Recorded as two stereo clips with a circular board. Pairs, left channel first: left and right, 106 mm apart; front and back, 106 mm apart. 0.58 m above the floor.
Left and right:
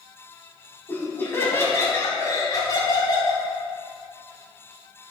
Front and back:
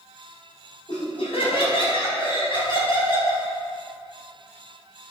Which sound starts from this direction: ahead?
Laughter, at 0.9 s.